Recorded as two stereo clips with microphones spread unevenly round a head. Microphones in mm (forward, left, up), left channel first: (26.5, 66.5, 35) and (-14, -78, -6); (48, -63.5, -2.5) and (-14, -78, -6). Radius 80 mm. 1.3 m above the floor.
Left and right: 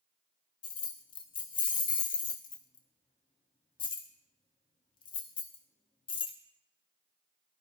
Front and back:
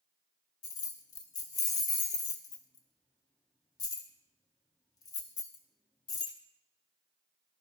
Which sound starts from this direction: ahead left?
Keys jangling, at 0.6 s.